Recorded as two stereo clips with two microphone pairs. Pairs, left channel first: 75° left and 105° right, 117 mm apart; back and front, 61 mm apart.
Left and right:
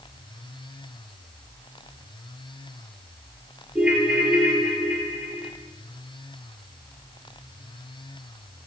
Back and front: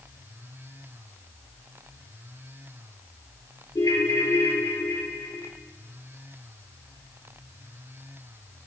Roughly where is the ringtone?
Behind.